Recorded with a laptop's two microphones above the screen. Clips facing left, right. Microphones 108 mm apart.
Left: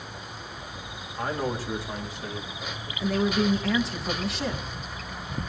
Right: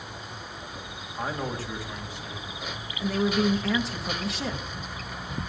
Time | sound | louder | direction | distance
1.2 | a man speaking | left 2 dB | 10° right (ahead or behind) | 1.4 m
3.0 | a woman speaking | even | centre (ahead or behind) | 1.1 m